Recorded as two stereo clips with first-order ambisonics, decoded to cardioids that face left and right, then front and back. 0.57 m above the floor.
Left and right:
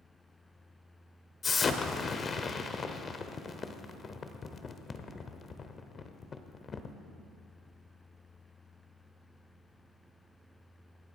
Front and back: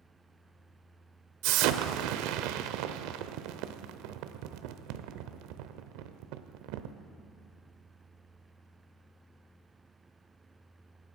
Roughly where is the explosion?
Behind.